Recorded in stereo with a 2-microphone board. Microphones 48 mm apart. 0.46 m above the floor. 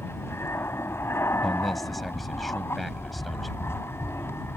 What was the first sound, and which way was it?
An aircraft, 60° left (ahead or behind).